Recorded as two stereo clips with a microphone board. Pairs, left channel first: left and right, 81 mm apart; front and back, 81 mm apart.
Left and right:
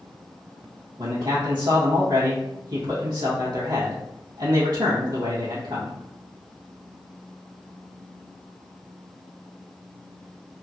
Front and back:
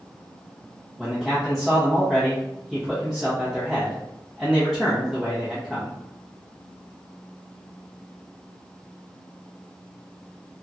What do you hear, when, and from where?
1.0 s a man speaking: 95° right, 0.9 m